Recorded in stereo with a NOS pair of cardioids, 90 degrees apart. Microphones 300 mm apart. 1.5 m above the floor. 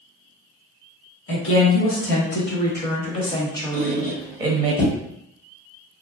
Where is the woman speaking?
50° left, 1.8 m; by 4.7 s 20° right, 1.0 m.